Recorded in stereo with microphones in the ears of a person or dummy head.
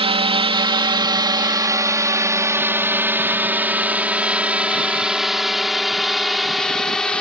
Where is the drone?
30° right (ahead or behind); by 7.2 s centre (ahead or behind).